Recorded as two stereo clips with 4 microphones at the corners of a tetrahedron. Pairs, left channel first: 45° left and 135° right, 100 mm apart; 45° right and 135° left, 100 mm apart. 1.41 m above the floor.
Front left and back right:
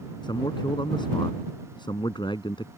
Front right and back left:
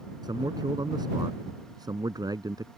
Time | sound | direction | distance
0.2 | a man speaking | 90° left | ?